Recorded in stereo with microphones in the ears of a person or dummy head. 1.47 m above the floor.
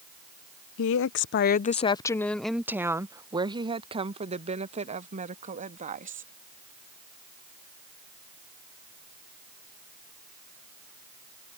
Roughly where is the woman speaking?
Left.